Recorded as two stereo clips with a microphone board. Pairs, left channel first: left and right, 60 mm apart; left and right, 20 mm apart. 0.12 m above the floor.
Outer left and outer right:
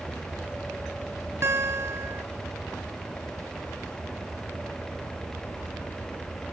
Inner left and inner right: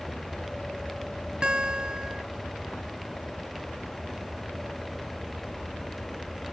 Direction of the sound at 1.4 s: 45° right (ahead or behind).